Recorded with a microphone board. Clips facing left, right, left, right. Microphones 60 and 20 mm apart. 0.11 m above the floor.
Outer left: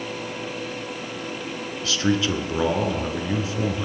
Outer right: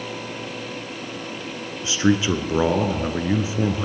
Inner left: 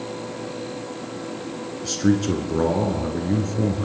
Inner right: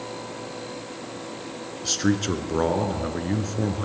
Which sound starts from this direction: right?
A man speaking, at 1.8 s.